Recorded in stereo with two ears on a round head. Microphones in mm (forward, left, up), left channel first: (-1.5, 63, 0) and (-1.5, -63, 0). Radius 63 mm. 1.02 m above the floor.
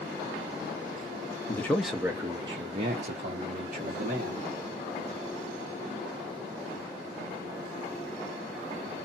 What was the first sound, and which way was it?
A man speaking, 20° left (ahead or behind).